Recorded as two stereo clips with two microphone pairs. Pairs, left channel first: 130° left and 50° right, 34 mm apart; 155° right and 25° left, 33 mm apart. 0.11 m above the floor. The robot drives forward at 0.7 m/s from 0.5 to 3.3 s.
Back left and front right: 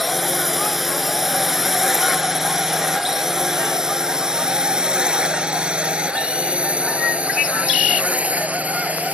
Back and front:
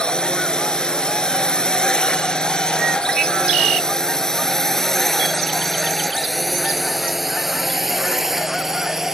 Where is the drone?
145° right; by 9.1 s 45° right.